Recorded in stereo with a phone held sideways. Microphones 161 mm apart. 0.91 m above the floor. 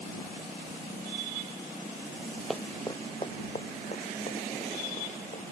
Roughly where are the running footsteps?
Centre.